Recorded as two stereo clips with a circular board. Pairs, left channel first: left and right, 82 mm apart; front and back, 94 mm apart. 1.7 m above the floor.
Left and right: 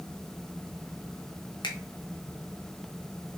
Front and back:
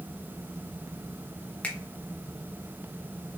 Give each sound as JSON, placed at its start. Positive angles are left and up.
{"t": 1.6, "sound": "a finger snap", "azimuth_deg": 75, "distance_m": 0.8}